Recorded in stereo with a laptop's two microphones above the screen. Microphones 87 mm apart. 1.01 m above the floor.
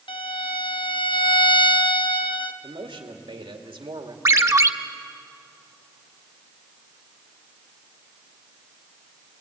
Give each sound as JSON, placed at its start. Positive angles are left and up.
{"t": 0.1, "sound": "a violin", "side_deg": 70, "distance_m": 0.8}
{"t": 2.6, "sound": "a man speaking", "side_deg": -75, "distance_m": 2.0}
{"t": 4.2, "sound": "a ringtone", "side_deg": -35, "distance_m": 0.9}